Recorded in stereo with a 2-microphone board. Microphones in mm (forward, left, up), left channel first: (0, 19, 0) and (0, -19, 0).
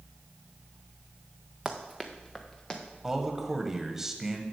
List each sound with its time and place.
1.6 s running footsteps: 10° right (ahead or behind), 1.3 m; by 2.8 s 20° left (ahead or behind), 1.9 m
3.0 s a man speaking: 15° right (ahead or behind), 1.1 m